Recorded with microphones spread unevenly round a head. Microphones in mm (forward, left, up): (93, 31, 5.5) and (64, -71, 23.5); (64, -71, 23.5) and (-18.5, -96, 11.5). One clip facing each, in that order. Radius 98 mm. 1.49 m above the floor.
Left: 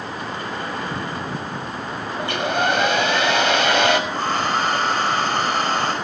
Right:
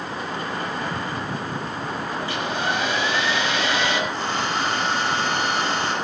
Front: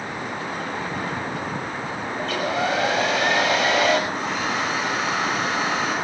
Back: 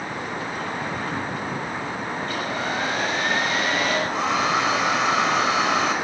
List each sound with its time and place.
2.2 s a hair dryer: 50° left, 6 m
4.1 s a hair dryer: 145° left, 4.5 m